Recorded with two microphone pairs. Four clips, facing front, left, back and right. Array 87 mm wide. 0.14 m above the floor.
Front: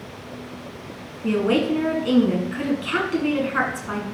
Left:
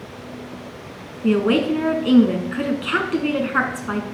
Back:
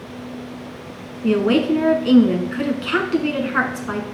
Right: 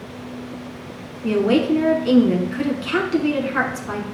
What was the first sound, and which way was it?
A woman speaking, 125° left.